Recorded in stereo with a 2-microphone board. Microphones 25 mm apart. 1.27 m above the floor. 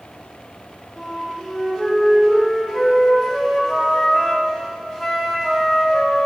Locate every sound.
1.0 s a flute: 5° left (ahead or behind), 3 m